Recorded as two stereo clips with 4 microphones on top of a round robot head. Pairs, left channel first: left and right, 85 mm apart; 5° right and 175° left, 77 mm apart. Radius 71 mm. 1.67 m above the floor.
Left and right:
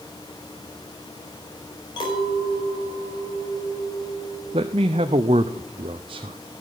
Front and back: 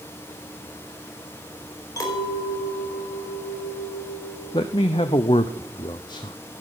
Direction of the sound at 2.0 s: 40° left.